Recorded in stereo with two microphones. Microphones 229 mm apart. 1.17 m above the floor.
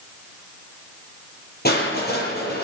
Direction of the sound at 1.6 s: 45° left (ahead or behind).